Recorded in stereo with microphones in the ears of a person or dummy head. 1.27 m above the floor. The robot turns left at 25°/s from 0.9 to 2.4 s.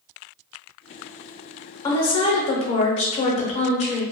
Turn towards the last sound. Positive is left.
turn(degrees=35)  # may be behind; listen again after turning